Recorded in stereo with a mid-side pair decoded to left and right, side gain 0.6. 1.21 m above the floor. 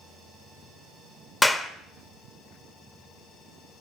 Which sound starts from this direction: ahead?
A clap, at 1.4 s.